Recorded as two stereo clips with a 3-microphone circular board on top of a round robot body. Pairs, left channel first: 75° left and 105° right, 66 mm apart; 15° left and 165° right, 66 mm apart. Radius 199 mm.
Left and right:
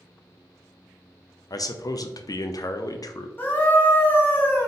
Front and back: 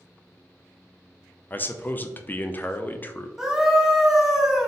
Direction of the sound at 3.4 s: 115° left.